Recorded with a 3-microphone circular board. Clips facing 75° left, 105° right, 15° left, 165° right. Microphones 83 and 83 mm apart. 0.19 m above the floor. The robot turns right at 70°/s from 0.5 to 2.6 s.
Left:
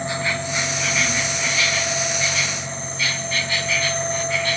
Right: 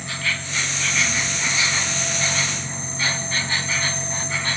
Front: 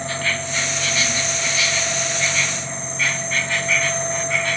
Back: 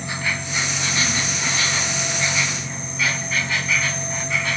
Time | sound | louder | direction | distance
0.0 | an insect | left 4 dB, front 2 dB | 130° left | 1.0 m